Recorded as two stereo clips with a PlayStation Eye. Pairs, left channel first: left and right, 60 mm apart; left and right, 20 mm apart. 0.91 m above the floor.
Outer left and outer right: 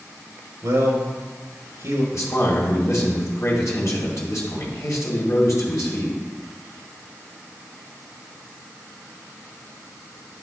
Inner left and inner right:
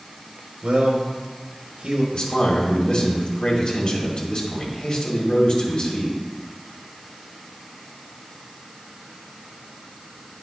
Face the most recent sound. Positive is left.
turn(degrees=60)  # may be behind; listen again after turning